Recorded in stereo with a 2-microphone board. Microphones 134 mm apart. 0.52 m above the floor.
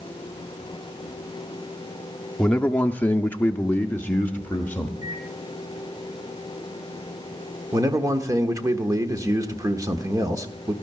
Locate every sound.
2.4 s a man speaking: 5° left (ahead or behind), 0.7 m; by 4.9 s 10° left (ahead or behind), 1.4 m
5.0 s a microwave: 30° right (ahead or behind), 3 m
7.7 s a man speaking: 25° right (ahead or behind), 1.3 m